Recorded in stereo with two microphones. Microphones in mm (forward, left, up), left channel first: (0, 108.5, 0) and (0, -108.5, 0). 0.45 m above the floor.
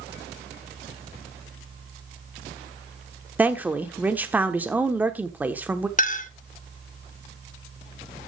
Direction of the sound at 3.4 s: 10° right (ahead or behind).